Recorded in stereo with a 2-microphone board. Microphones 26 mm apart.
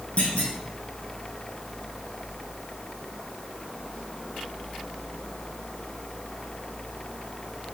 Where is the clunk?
55° left (ahead or behind), 1.4 m.